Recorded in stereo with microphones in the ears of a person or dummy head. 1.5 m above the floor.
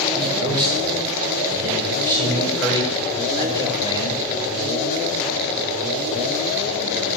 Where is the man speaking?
5° left (ahead or behind), 4 m; by 4.2 s 20° left (ahead or behind), 6 m.